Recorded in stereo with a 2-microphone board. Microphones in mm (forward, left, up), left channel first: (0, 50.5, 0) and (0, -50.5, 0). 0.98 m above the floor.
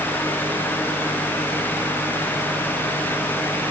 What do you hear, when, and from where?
Only background noise.